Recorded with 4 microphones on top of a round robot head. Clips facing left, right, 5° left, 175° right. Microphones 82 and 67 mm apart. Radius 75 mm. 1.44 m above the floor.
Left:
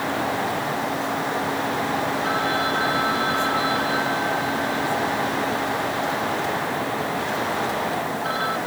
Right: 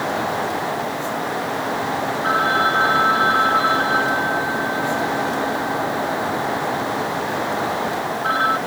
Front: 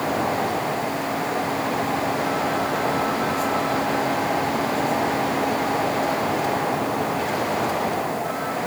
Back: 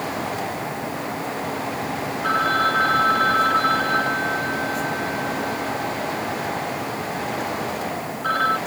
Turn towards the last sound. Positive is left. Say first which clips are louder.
# right 5 dB, back 3 dB
turn(degrees=-145)